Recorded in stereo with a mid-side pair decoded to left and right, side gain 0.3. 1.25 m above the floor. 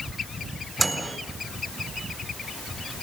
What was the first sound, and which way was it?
A microwave, 30° right.